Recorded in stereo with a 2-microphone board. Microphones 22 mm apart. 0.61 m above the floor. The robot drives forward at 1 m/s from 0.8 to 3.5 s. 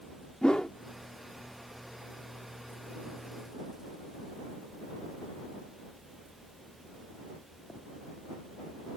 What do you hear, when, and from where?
0.4 s a whoosh: 40° left (ahead or behind)